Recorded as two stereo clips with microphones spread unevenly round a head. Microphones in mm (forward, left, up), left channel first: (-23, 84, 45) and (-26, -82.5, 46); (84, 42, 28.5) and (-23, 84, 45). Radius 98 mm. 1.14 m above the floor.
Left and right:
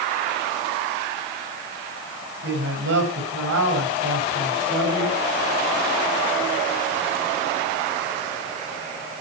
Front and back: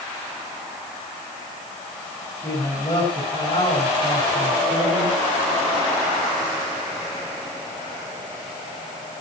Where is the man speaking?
95° right, 6 m.